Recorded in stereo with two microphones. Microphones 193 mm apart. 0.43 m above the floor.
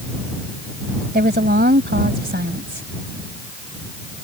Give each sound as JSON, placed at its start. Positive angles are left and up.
{"t": 1.1, "sound": "a woman speaking", "side_deg": -55}